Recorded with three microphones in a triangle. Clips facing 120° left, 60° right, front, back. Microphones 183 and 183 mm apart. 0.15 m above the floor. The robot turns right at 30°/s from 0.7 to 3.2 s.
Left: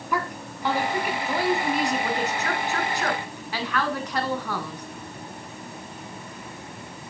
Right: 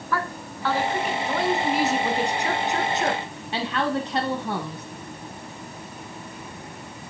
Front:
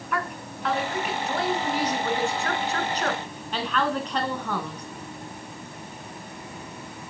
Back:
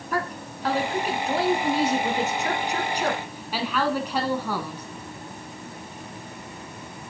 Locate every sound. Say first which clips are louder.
0.1 s a woman speaking: even, back 2 dB; 175° right, 1.2 m; by 4.9 s 100° right, 1.2 m